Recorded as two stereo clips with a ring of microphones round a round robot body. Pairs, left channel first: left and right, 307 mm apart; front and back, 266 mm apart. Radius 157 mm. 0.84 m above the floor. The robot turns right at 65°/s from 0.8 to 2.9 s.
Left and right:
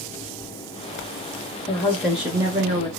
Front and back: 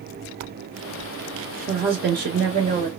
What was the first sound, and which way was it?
A woman speaking, 150° left.